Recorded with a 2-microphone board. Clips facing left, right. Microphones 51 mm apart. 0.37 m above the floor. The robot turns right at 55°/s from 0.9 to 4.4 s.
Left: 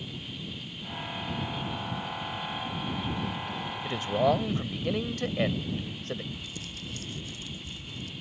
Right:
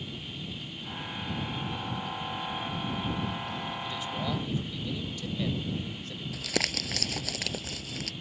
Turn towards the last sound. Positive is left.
turn(degrees=-85)